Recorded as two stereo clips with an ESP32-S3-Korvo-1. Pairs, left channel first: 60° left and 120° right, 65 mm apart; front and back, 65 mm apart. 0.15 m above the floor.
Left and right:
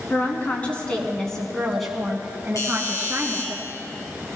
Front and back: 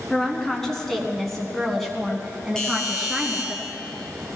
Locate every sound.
0.1 s a woman speaking: 75° left, 1.8 m; by 3.5 s 95° right, 1.8 m
2.5 s a doorbell: 75° left, 4 m